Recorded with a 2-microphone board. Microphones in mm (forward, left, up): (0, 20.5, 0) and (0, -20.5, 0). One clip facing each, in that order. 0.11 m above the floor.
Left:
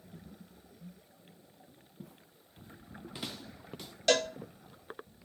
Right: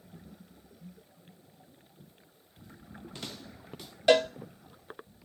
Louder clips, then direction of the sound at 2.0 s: Left 5 dB; 85° left.